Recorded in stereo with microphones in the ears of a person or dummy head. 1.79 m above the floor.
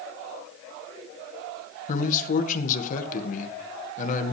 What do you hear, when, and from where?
1.9 s a man speaking: 45° left (ahead or behind), 1.8 m